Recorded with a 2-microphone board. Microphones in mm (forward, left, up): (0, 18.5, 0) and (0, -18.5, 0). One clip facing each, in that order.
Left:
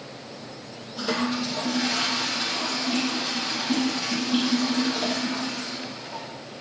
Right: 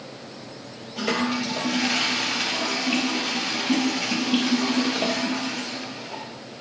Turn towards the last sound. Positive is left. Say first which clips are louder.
# right 2 dB
turn(degrees=-60)  # may be behind; listen again after turning